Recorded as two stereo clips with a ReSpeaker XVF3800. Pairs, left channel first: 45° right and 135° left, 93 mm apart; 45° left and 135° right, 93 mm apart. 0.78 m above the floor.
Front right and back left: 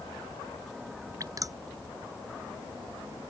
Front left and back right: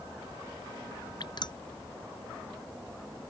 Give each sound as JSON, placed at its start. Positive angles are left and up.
{"t": 1.2, "sound": "dripping", "azimuth_deg": 85}